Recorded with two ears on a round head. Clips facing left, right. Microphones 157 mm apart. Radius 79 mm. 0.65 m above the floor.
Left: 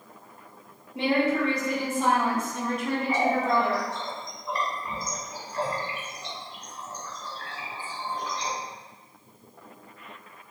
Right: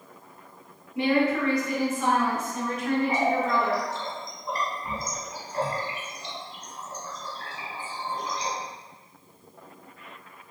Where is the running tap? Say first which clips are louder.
Even; 25° right (ahead or behind), 1.5 m.